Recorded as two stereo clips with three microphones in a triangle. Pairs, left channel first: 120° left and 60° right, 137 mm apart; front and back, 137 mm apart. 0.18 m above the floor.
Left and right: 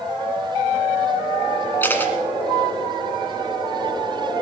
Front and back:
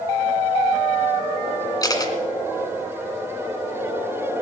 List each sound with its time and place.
1.8 s a camera shutter: 50° left, 1.7 m